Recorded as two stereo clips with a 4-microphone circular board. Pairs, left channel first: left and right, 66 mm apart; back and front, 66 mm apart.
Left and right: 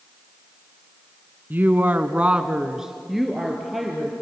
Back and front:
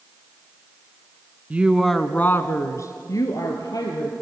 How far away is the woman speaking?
About 1.3 m.